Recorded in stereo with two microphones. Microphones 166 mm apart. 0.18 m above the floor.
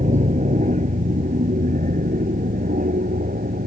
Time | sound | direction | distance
0.0 | an aircraft | 45° right (ahead or behind) | ?